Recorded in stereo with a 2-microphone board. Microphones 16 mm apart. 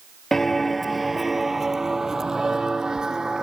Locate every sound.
0.3 s footsteps: 20° left (ahead or behind); by 3.4 s 55° right (ahead or behind)